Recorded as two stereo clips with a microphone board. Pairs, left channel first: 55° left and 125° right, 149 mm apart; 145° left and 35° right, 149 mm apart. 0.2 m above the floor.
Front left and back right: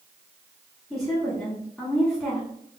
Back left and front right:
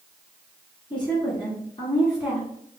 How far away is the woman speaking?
About 1.6 m.